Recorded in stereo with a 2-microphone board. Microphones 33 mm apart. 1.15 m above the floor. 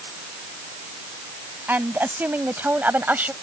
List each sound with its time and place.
1.7 s a woman speaking: 80° right; by 3.3 s 65° right (ahead or behind)